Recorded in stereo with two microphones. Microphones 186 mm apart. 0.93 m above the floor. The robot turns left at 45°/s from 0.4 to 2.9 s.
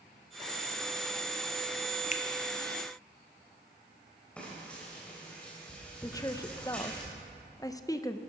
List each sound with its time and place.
2.1 s a finger snap: 40° left (ahead or behind), 0.7 m
4.4 s frying: 5° left (ahead or behind), 4 m
6.0 s a woman speaking: 20° left (ahead or behind), 0.5 m